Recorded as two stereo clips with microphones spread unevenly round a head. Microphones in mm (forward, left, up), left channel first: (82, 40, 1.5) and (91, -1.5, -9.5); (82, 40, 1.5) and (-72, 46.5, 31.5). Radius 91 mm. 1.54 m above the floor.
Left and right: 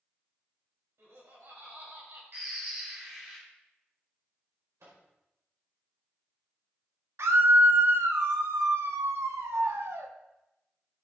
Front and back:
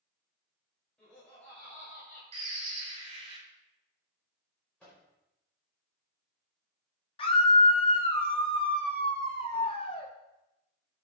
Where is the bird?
140° right, 2.5 m.